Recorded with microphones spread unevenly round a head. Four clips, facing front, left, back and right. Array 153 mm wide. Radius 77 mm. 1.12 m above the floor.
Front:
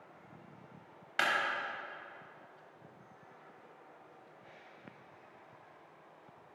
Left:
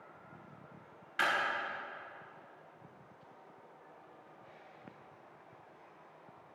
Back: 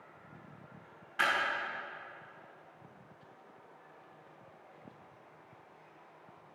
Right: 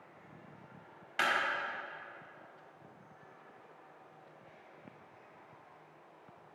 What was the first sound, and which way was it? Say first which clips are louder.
A clap: even, back 1 dB; 15° right.